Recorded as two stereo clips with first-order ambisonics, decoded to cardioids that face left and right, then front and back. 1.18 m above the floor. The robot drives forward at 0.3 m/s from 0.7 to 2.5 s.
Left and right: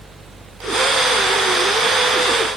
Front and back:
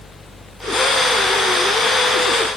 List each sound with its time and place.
Only background noise.